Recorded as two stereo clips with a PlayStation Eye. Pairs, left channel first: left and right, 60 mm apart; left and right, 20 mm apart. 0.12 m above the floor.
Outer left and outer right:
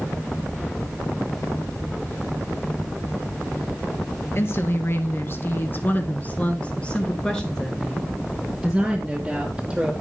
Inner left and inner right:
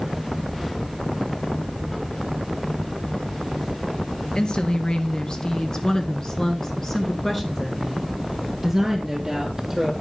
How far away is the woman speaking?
About 1.9 m.